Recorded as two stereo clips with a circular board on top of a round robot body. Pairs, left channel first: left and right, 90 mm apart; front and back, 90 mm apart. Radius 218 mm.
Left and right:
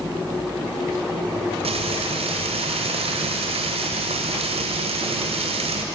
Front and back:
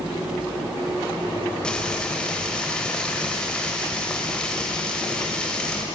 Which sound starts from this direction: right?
Frying, at 1.6 s.